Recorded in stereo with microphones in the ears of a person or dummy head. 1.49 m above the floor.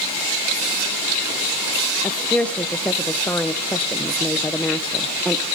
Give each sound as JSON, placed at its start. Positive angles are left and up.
{"t": 2.0, "sound": "a woman speaking", "side_deg": 10, "distance_m": 0.5}